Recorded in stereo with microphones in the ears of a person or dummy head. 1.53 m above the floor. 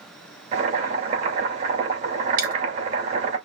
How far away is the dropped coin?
About 2 m.